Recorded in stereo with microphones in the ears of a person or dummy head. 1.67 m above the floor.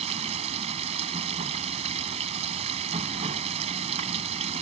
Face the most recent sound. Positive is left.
turn(degrees=-30)  # may be behind; listen again after turning